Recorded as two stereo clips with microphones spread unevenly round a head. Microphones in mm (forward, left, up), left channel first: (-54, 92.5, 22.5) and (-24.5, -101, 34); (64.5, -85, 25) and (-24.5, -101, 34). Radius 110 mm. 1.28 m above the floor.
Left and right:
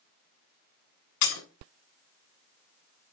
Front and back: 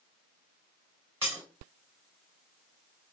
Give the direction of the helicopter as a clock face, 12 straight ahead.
I don't hear a helicopter.